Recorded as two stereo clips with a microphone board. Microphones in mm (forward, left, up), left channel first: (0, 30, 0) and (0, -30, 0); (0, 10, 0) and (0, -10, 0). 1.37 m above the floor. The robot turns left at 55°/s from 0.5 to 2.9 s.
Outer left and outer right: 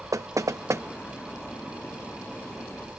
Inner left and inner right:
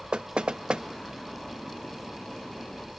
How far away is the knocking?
About 0.9 m.